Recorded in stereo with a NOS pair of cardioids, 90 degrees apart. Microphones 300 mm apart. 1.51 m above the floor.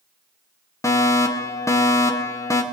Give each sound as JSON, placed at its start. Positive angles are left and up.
{"t": 0.8, "sound": "a fire alarm", "azimuth_deg": 10, "distance_m": 2.0}